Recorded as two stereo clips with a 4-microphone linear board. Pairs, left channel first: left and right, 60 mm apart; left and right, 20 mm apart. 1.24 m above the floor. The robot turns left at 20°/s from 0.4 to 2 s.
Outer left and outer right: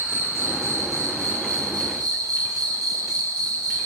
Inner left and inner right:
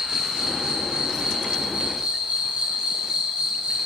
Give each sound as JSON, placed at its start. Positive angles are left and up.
{"t": 0.0, "sound": "an insect", "azimuth_deg": -50, "distance_m": 6.0}